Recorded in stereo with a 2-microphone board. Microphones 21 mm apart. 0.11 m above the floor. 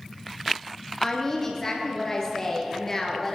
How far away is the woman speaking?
About 2.5 m.